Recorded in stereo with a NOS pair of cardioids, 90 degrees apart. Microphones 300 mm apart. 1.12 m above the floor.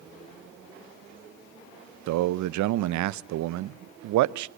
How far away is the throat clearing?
No throat clearing in this recording.